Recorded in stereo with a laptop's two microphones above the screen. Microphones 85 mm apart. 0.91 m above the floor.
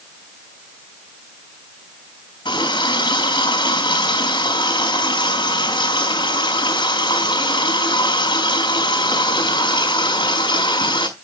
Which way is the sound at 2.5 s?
65° left (ahead or behind).